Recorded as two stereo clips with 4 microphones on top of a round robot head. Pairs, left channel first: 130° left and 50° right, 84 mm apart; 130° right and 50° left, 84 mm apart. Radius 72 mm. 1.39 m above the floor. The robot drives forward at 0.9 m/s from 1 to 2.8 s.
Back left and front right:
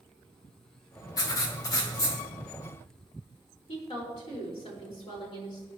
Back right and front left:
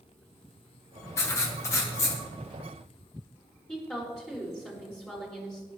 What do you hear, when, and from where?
1.2 s writing: 175° left, 1.6 m
3.7 s a woman speaking: 150° left, 5 m